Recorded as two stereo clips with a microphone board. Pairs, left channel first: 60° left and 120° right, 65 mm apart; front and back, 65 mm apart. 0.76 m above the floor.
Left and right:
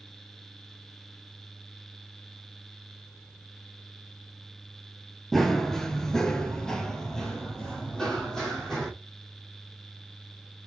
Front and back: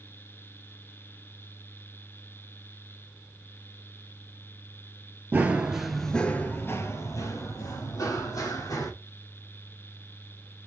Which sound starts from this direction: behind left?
Running footsteps, at 5.3 s.